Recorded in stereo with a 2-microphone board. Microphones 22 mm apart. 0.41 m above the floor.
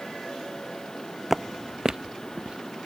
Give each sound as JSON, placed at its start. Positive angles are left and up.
{"t": 1.3, "sound": "footsteps", "side_deg": -10}